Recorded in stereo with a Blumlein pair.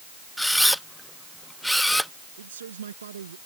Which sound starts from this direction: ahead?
A camera shutter, at 0.4 s.